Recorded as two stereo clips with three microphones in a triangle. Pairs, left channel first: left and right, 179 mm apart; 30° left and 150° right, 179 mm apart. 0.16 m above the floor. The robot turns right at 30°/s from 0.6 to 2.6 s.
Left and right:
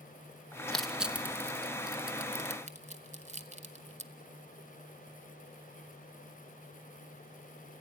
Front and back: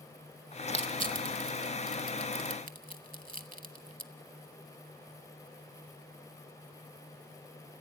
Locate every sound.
0.7 s crushing: 175° left, 0.9 m; by 4.1 s 130° right, 0.9 m